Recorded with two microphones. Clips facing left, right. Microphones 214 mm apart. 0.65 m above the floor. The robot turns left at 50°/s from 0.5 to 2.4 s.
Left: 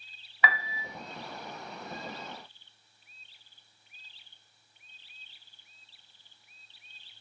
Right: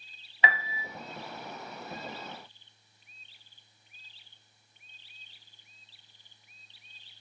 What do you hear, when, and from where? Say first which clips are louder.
0.4 s a piano: right 1 dB; 25° right (ahead or behind), 0.5 m; by 0.8 s 20° right (ahead or behind), 0.5 m